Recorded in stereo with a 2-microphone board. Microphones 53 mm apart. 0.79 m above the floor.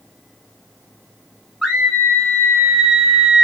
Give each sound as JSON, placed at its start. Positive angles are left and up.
{"t": 1.6, "sound": "a scream", "side_deg": 0, "distance_m": 0.6}